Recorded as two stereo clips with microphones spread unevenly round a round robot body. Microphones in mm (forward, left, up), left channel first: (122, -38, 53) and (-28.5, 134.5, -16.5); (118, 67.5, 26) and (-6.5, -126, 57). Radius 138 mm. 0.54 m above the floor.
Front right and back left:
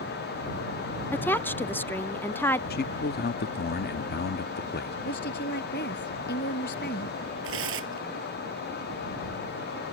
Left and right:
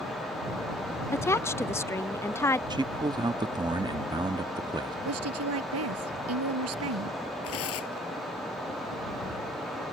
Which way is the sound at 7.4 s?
95° left.